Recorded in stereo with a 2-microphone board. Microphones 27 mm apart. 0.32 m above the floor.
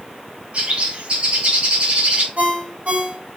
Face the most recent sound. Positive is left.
turn(degrees=-50)  # may be behind; listen again after turning